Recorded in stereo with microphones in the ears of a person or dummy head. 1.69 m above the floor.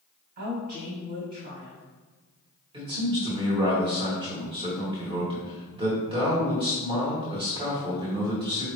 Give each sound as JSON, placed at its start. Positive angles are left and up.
{"t": 0.4, "sound": "a woman speaking", "side_deg": -45, "distance_m": 1.6}
{"t": 2.7, "sound": "a man speaking", "side_deg": -25, "distance_m": 1.3}